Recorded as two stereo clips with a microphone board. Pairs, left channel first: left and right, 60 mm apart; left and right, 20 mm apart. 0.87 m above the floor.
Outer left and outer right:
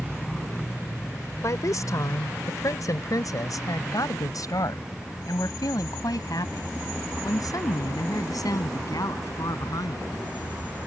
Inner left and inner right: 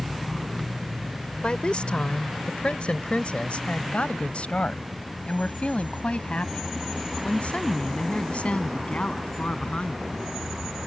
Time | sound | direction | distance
1.4 | a woman speaking | 65° left (ahead or behind) | ?